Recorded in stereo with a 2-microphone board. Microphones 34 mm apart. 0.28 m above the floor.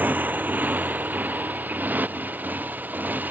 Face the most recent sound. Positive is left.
turn(degrees=-75)  # may be behind; listen again after turning